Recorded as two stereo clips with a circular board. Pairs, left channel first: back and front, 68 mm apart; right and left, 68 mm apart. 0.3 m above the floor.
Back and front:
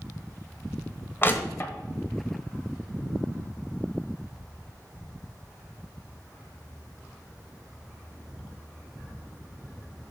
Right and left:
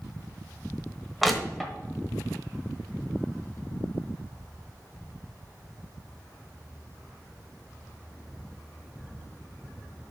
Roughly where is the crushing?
Behind.